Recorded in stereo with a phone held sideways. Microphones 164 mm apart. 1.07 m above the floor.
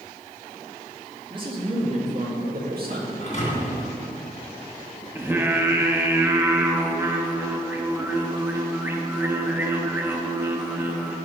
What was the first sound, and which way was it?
A man speaking, 30° right (ahead or behind).